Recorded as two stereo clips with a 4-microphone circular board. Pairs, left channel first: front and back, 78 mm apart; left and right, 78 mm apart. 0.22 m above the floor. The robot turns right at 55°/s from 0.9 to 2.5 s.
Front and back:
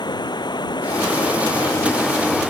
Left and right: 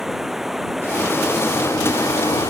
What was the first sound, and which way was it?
Running water, 5° right.